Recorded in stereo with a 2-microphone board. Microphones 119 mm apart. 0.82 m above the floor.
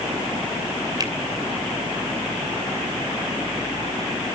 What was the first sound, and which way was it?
A finger snap, 35° right (ahead or behind).